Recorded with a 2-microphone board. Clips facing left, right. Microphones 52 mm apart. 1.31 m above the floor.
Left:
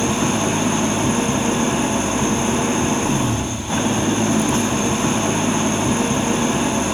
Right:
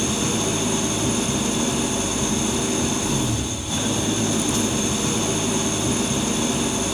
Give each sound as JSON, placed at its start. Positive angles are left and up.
{"t": 0.0, "sound": "an engine running", "side_deg": 35, "distance_m": 1.9}